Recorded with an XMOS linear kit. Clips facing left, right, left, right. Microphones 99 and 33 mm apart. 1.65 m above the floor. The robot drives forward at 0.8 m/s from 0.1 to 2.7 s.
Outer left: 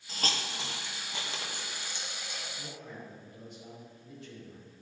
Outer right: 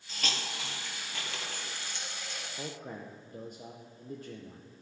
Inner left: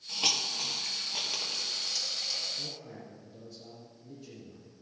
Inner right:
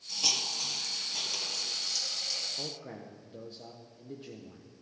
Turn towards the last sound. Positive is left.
turn(degrees=-45)  # may be behind; listen again after turning